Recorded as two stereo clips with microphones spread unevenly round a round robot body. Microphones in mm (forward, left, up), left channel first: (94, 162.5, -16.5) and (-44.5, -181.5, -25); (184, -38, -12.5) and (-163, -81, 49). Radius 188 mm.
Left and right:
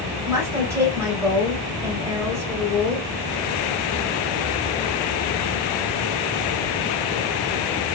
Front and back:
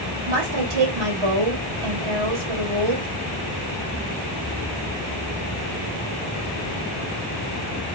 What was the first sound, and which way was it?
A woman speaking, 165° left.